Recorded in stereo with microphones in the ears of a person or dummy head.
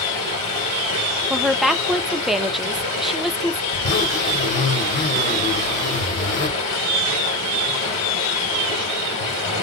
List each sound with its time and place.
0.0 s running water: 35° left (ahead or behind), 1.9 m
1.3 s a woman speaking: centre (ahead or behind), 0.5 m
3.7 s a zipper: 45° left (ahead or behind), 1.7 m